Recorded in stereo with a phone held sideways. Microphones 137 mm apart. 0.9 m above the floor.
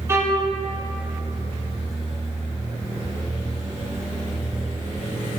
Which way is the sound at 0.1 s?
20° right (ahead or behind).